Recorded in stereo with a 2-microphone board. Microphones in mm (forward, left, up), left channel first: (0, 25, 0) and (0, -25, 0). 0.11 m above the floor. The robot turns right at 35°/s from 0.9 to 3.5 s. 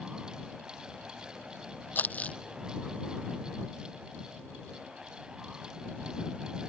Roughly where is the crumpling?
Left.